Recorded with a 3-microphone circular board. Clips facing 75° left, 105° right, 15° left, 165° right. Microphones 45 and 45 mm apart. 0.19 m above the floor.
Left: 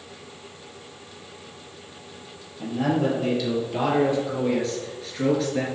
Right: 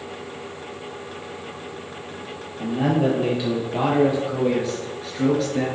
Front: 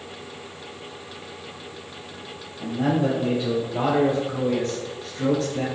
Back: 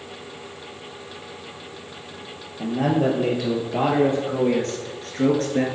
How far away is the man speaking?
About 3.5 m.